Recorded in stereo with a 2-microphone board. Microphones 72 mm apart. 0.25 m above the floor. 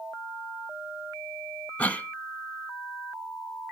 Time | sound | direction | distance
1.8 | a cough | 20° left (ahead or behind) | 1.1 m